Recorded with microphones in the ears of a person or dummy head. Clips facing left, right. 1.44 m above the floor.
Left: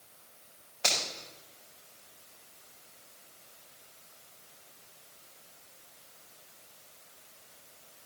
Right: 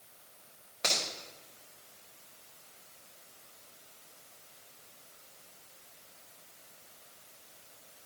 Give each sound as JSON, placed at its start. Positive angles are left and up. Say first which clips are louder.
{"t": 0.8, "sound": "a finger snap", "louder": "left 1 dB", "side_deg": -25, "distance_m": 5.0}